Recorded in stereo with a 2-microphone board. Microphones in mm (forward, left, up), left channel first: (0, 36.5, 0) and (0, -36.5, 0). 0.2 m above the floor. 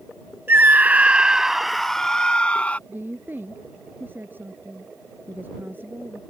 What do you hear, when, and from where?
0.5 s a scream: 35° right (ahead or behind); by 2.8 s 20° left (ahead or behind)
2.9 s a woman speaking: 30° right (ahead or behind)